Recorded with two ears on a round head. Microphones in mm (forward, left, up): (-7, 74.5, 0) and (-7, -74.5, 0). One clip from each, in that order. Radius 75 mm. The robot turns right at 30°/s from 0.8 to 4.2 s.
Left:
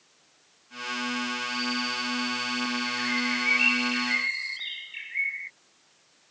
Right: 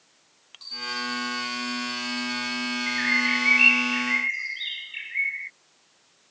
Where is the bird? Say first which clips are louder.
Right 8 dB; 55° right; by 5.5 s 15° right.